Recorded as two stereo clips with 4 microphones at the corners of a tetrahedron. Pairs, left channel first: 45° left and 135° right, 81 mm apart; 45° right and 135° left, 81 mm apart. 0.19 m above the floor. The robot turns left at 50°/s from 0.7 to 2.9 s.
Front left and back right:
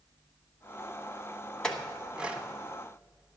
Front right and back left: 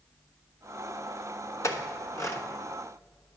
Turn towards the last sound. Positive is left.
turn(degrees=-95)